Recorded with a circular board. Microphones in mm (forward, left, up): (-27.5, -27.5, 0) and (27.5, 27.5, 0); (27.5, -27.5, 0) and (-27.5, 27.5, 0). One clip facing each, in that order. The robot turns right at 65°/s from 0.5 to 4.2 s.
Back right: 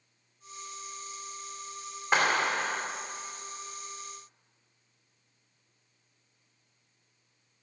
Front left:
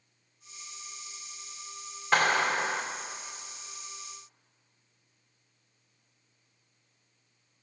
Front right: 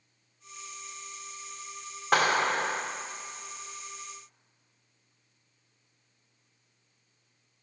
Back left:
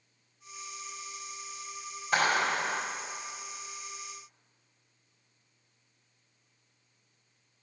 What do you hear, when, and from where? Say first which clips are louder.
2.1 s a clap: front left 1 dB, front right 2 dB; 65° right, 2.5 m; by 2.8 s 15° right, 2.5 m